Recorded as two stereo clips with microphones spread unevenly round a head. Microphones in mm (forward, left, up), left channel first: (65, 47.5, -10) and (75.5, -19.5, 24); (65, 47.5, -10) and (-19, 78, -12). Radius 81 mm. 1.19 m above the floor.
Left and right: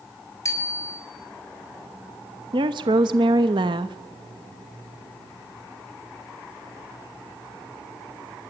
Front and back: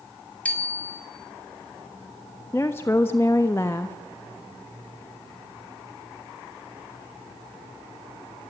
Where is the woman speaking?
95° right, 1.2 m.